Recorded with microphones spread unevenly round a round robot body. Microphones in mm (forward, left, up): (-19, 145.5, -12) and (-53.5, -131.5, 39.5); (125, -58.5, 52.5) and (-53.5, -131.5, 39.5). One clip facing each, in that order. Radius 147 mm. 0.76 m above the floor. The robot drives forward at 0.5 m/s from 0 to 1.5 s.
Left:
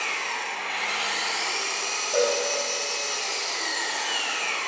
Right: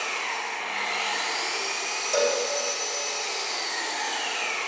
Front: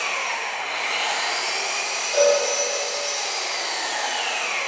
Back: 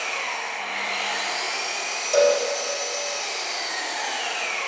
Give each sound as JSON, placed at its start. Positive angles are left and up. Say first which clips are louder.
{"t": 0.0, "sound": "an engine running", "louder": "right 1 dB, front 2 dB", "azimuth_deg": 30, "distance_m": 1.8}
{"t": 2.1, "sound": "a cowbell", "louder": "left 1 dB, even", "azimuth_deg": -140, "distance_m": 1.8}